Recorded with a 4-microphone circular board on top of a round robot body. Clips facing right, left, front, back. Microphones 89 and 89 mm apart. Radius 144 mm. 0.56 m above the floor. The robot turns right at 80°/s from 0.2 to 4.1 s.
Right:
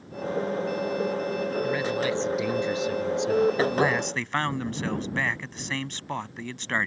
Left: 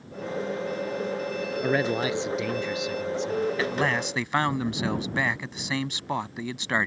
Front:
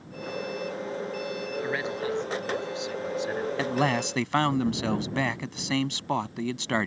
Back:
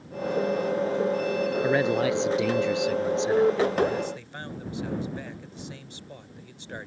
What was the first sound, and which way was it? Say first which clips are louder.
A man speaking: left 5 dB, back 7 dB; 120° left.